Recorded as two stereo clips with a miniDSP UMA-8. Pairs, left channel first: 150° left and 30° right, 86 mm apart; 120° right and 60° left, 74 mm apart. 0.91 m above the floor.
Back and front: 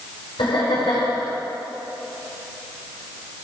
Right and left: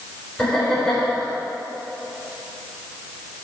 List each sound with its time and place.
0.4 s laughter: 160° left, 4.5 m